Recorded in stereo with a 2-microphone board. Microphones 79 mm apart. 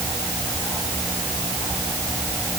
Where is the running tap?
I don't hear a running tap.